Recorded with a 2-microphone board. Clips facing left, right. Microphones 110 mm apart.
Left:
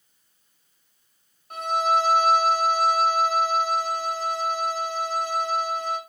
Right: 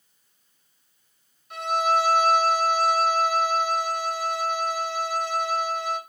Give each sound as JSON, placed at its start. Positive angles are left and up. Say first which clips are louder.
{"t": 1.5, "sound": "a violin", "louder": "even", "side_deg": 45, "distance_m": 4.0}